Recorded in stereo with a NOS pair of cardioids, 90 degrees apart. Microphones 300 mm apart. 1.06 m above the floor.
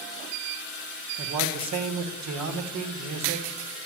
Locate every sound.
1.2 s a man speaking: 65° right, 1.5 m